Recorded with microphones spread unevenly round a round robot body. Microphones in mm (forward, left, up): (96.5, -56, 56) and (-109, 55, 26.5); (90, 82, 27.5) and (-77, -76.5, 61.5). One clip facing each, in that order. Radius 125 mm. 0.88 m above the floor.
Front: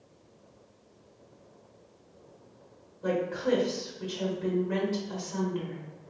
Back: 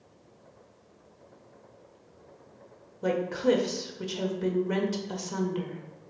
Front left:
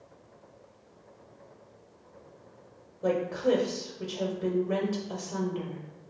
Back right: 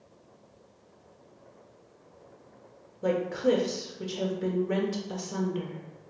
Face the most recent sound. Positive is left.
turn(degrees=160)